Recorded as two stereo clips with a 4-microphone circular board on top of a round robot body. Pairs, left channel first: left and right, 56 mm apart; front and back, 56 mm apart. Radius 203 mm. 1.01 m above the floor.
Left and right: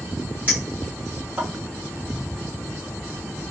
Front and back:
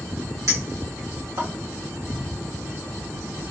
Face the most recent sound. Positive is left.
turn(degrees=-150)